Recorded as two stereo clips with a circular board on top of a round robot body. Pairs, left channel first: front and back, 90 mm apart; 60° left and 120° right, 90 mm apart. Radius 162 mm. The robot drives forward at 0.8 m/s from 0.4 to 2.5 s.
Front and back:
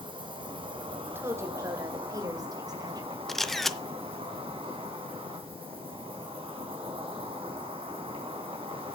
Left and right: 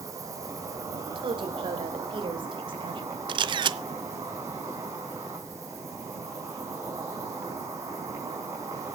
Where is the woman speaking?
115° right, 2 m; by 3.2 s 140° right, 2.5 m.